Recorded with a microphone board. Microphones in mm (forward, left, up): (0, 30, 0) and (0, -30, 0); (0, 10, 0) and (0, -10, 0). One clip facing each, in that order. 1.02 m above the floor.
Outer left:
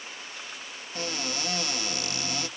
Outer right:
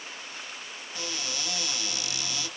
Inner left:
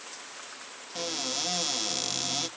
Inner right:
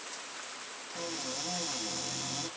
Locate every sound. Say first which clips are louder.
0.9 s a cupboard door: outer left 4 dB, inner left 6 dB; 45° left (ahead or behind), 0.7 m